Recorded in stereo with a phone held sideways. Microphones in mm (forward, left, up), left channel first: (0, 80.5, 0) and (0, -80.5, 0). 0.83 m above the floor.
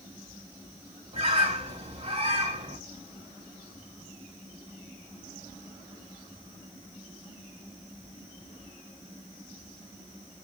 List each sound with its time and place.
1.1 s a bird: 40° right (ahead or behind), 1.5 m